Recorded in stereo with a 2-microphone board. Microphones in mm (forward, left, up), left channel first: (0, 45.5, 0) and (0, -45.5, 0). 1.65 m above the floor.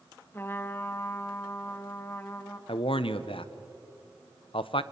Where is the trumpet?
25° left (ahead or behind), 1.1 m.